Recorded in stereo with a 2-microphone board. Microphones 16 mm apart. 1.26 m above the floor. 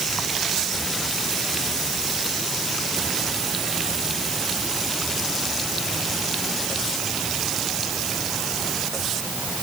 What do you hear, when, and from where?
Only background noise.